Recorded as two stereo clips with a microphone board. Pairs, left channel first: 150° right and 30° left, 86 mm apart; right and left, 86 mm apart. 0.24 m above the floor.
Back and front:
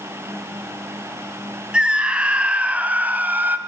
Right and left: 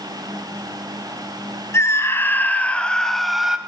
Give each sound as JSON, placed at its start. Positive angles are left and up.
{"t": 1.7, "sound": "a scream", "azimuth_deg": -45, "distance_m": 2.0}